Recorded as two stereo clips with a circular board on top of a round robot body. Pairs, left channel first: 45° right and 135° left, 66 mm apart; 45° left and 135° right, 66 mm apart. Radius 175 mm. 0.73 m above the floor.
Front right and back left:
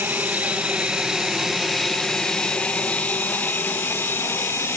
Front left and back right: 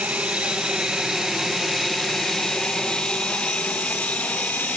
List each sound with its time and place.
0.0 s an aircraft: 170° left; by 4.8 s 15° right